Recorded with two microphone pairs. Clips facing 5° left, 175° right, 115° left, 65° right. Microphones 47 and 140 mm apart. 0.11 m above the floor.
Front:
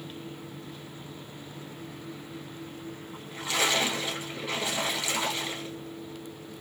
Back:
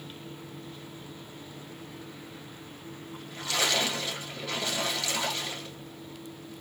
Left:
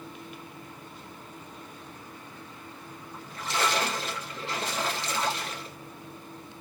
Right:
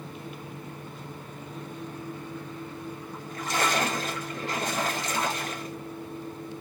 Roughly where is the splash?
Ahead right.